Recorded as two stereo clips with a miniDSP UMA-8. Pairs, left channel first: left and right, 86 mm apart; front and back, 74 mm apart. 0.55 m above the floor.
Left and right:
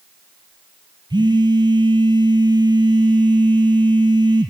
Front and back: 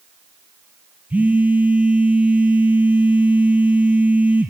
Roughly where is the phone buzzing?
Right.